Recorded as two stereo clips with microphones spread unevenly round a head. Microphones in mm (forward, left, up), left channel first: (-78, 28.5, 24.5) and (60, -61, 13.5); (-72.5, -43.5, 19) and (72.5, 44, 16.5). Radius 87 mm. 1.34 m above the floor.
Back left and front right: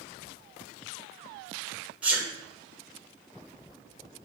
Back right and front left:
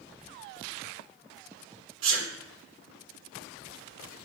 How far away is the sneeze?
About 1.0 m.